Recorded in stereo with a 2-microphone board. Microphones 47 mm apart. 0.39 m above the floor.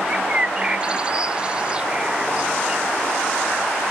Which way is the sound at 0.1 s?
25° right (ahead or behind).